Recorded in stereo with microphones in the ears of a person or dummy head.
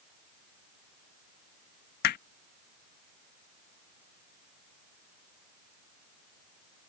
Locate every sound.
2.0 s hammering: 50° left (ahead or behind)